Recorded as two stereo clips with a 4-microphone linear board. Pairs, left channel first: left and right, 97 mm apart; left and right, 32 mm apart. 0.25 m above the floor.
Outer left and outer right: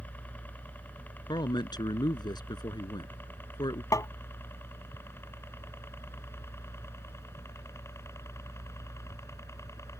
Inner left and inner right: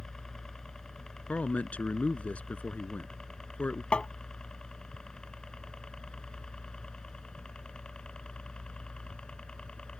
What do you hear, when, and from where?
0.0 s a helicopter: 15° left (ahead or behind); by 10.0 s 30° left (ahead or behind)
1.3 s a man speaking: 50° left (ahead or behind)
3.9 s tapping: 35° left (ahead or behind)